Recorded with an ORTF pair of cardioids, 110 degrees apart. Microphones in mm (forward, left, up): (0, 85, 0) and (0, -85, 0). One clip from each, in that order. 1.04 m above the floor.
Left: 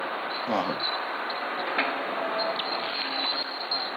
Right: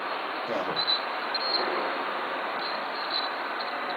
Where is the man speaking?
55° left, 2.5 m.